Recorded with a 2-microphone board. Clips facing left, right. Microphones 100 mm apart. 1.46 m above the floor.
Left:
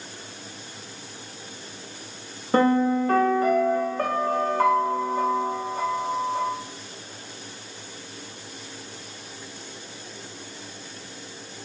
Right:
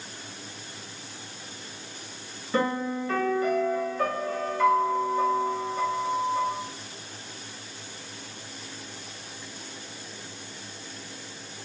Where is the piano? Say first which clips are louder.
Left 7 dB; 50° left (ahead or behind), 0.5 m.